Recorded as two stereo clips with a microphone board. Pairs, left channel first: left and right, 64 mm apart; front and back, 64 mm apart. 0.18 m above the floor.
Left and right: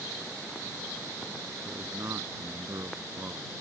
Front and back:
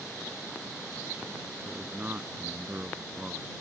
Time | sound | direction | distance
1.6 | a man speaking | 120° right | ?